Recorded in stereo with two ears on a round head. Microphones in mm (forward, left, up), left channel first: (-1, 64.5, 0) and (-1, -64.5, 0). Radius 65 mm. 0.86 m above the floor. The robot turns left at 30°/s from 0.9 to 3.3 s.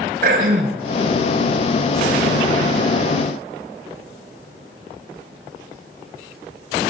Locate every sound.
0.2 s throat clearing: 70° right (ahead or behind), 5 m